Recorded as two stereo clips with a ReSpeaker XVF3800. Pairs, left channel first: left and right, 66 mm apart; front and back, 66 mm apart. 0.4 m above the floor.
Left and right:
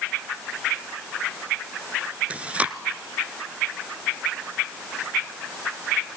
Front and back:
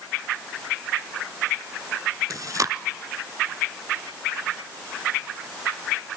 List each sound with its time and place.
2.3 s chewing: 155° right, 0.8 m